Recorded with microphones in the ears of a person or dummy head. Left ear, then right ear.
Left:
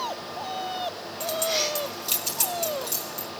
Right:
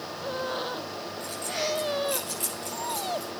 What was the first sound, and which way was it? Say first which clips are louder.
Keys jangling: left 6 dB; 60° left (ahead or behind).